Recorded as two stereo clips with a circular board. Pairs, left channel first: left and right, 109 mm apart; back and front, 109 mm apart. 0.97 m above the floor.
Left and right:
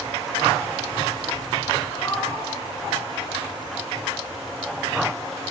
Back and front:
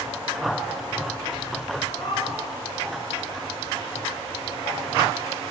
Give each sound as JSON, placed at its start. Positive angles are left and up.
{"t": 1.9, "sound": "a cat meowing", "azimuth_deg": 150, "distance_m": 6.5}